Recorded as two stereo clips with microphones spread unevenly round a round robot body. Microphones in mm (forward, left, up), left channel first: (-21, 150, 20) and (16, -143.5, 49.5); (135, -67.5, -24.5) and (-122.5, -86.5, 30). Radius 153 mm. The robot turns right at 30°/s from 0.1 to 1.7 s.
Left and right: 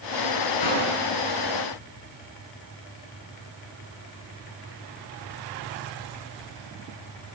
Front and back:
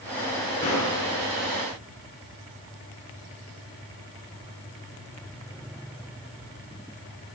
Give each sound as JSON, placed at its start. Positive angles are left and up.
{"t": 0.6, "sound": "a gunshot", "azimuth_deg": 85, "distance_m": 6.0}